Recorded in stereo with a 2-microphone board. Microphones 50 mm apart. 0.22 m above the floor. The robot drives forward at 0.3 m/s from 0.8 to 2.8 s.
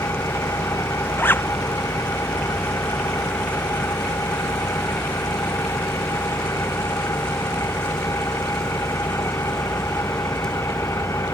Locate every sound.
0.0 s an engine running: 80° left; by 11.3 s 85° left
1.2 s a zipper: 45° left (ahead or behind); by 1.5 s 50° left (ahead or behind)